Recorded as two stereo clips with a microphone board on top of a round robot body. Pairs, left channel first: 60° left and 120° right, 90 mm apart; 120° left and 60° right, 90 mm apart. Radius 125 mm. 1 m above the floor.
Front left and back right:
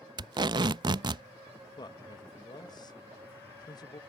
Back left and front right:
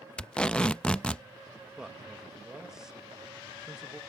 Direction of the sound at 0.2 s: 160° right.